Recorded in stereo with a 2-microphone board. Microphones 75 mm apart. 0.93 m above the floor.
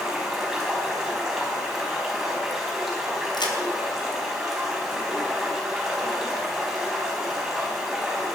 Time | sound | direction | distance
0.0 | running water | 5° right (ahead or behind) | 5 m
3.3 | a crack | 80° left | 3 m